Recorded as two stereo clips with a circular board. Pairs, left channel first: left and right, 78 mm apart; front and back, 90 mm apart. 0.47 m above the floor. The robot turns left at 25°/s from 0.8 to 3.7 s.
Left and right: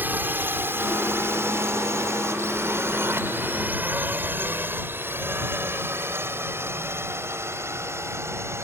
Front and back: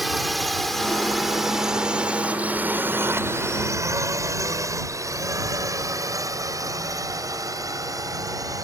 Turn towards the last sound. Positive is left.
turn(degrees=-140)